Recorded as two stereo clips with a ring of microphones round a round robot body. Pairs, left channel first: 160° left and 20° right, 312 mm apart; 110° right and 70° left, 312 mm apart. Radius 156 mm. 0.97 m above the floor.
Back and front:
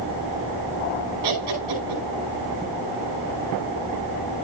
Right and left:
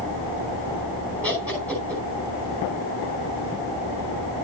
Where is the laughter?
25° right, 5.5 m.